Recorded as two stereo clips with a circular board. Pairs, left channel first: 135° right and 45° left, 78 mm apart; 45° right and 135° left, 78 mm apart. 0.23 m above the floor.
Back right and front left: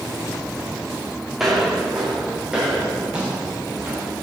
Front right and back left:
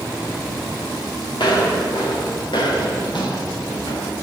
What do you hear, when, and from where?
1.4 s footsteps: 40° right, 4.5 m; by 4.2 s 25° right, 5.5 m